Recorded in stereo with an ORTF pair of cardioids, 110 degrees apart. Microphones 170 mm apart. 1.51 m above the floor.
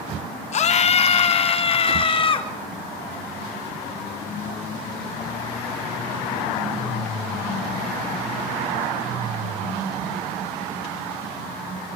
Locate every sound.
0.5 s a scream: 45° left, 3 m; by 2.5 s 30° left, 4 m